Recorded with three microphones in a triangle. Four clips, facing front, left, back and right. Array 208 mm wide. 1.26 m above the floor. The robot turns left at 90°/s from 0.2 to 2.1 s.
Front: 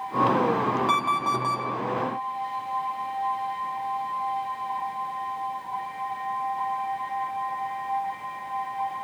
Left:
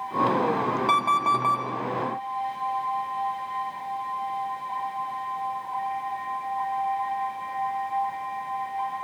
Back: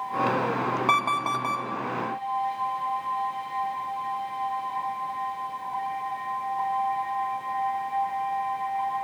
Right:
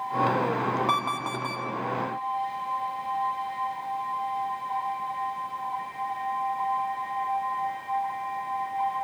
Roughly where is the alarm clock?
Behind.